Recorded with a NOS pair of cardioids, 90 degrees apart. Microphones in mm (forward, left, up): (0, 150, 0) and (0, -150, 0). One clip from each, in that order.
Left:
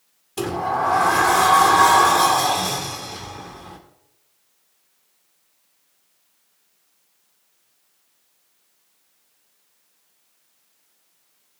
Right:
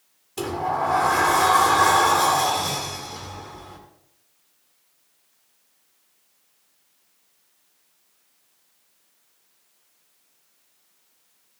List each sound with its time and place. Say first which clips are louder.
0.4 s a sliding door: left 2 dB; 20° left, 1.9 m